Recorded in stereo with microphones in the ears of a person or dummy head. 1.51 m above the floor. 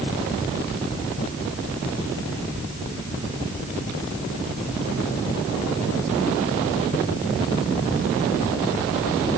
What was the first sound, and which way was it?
Only background noise.